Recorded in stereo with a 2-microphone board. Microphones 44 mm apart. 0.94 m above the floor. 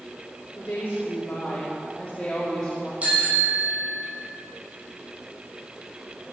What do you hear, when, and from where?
0.6 s a woman speaking: 50° left (ahead or behind), 2.5 m; by 2.9 s 10° left (ahead or behind), 2.5 m
3.0 s a bicycle bell: 35° right (ahead or behind), 6.5 m